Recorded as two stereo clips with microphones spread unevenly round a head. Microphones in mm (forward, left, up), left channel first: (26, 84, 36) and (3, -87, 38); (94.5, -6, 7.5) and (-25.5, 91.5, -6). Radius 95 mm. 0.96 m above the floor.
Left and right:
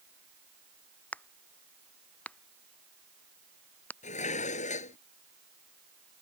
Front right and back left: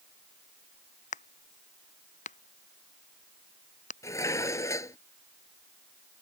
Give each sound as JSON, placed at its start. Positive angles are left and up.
{"t": 1.1, "sound": "a crack", "azimuth_deg": 0}
{"t": 4.0, "sound": "dishes clattering", "azimuth_deg": 30}